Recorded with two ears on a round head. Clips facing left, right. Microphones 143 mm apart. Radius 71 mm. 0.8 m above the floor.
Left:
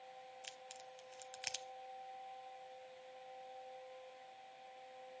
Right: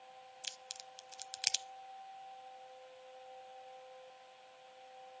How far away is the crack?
About 1.0 m.